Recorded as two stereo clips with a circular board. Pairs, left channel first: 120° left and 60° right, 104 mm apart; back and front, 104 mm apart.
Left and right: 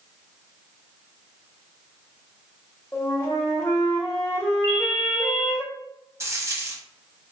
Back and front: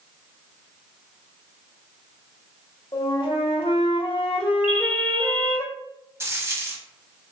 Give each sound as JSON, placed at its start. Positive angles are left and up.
{"t": 2.9, "sound": "a flute", "azimuth_deg": 180, "distance_m": 0.7}
{"t": 4.6, "sound": "a ringtone", "azimuth_deg": 70, "distance_m": 0.9}
{"t": 6.2, "sound": "a dropped coin", "azimuth_deg": -35, "distance_m": 0.6}